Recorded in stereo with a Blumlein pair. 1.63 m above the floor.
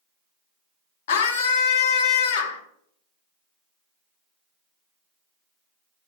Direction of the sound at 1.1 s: 55° left.